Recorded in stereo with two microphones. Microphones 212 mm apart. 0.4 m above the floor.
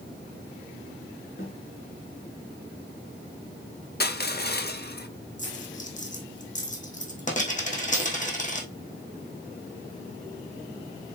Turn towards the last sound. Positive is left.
turn(degrees=35)  # may be behind; listen again after turning